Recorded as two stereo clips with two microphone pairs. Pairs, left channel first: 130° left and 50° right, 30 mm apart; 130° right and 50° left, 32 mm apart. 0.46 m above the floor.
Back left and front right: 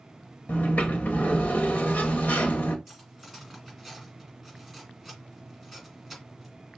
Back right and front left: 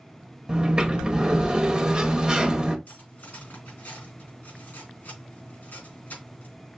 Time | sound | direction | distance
0.5 | a sliding door | 110° left | 0.7 m
2.9 | cutlery clinking | 145° right | 3 m